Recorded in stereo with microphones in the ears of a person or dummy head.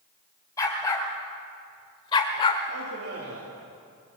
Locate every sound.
0.6 s a dog barking: 20° left (ahead or behind), 3 m; by 2.6 s 30° left (ahead or behind), 1.3 m
2.7 s a man speaking: 85° right, 3.5 m